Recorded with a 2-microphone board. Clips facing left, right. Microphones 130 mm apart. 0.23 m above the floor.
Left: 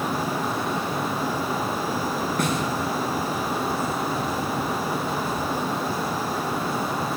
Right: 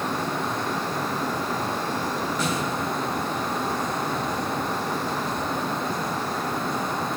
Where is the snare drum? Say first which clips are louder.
Left 3 dB; 55° left (ahead or behind), 4.5 m.